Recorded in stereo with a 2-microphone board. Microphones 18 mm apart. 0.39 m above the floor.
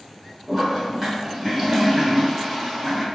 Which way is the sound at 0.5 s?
20° right (ahead or behind).